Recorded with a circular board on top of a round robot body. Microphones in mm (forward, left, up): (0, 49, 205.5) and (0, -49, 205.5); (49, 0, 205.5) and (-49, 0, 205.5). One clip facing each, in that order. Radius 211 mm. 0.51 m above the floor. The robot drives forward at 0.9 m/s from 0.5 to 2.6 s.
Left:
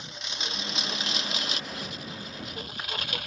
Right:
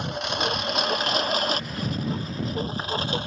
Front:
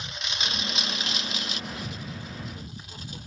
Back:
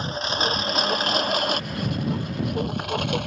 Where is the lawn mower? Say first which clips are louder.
Right 13 dB, back 10 dB; 125° right; by 3.3 s 155° right.